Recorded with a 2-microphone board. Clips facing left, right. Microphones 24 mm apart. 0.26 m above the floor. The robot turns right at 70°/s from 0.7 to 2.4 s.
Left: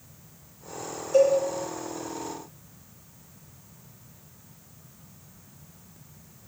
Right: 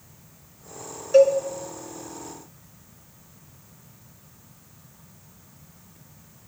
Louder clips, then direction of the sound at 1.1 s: Right 4 dB; 60° right (ahead or behind).